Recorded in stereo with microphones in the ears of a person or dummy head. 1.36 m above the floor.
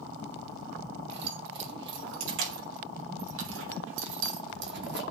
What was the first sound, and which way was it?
Keys jangling, 70° right (ahead or behind).